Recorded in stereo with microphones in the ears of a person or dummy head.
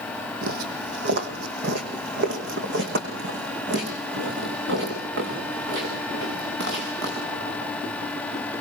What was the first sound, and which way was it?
Footsteps, 55° right (ahead or behind).